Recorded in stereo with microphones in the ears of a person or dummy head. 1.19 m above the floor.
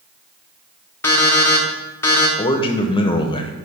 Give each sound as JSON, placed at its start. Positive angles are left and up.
{"t": 1.0, "sound": "an alarm clock", "side_deg": 15, "distance_m": 1.2}
{"t": 2.4, "sound": "a man speaking", "side_deg": 25, "distance_m": 0.8}